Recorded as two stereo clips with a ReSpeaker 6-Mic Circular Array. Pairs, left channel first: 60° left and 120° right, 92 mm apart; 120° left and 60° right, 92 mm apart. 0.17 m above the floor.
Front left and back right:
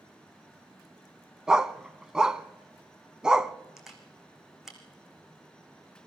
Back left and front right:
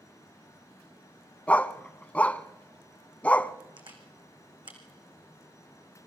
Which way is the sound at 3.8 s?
35° right.